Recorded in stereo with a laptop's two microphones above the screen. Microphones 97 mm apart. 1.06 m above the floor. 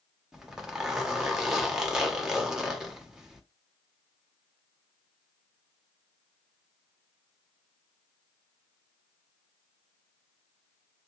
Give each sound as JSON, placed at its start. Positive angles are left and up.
{"t": 0.3, "sound": "a zipper", "side_deg": -5, "distance_m": 1.0}